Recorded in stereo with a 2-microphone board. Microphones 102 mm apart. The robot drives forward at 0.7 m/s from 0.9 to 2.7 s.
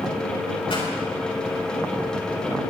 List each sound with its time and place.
0.7 s a pop: 65° left (ahead or behind), 4.5 m